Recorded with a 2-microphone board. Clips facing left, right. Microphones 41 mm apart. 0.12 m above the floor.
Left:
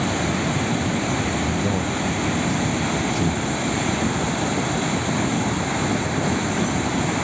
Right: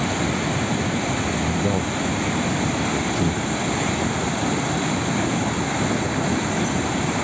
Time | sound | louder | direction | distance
1.3 | a man speaking | even | 15° right (ahead or behind) | ?